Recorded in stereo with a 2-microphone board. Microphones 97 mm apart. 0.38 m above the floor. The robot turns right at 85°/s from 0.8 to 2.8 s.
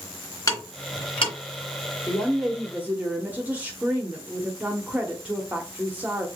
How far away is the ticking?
About 2 m.